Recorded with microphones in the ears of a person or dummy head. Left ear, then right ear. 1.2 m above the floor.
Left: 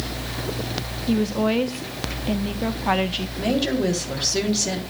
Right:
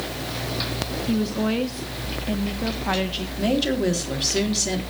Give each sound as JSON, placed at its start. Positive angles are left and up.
{"t": 1.1, "sound": "a woman speaking", "side_deg": 20, "distance_m": 1.0}
{"t": 3.4, "sound": "a woman speaking", "side_deg": 0, "distance_m": 3.5}